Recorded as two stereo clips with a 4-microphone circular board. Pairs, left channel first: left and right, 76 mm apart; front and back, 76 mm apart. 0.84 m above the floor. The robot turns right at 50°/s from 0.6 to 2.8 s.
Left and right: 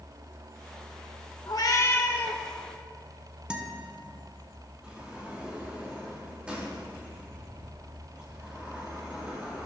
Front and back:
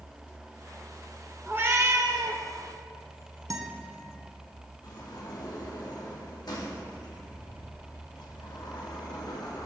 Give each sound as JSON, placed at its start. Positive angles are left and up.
{"t": 1.5, "sound": "a cat meowing", "azimuth_deg": 115, "distance_m": 0.9}
{"t": 3.5, "sound": "a guitar", "azimuth_deg": -165, "distance_m": 1.0}
{"t": 4.8, "sound": "a sliding door", "azimuth_deg": -15, "distance_m": 1.6}